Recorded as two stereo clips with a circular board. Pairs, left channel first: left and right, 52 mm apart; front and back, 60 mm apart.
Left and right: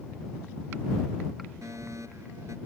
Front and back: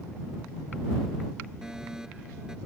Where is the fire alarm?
100° right.